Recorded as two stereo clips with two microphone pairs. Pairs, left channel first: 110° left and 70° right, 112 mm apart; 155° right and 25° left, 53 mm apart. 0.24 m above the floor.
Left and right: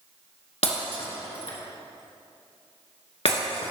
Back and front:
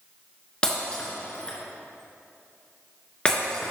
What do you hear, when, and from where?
0.6 s breaking glass: 135° left, 2 m